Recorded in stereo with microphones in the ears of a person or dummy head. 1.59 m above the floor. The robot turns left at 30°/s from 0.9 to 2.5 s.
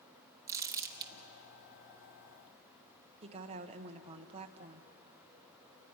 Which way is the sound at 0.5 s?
15° right (ahead or behind).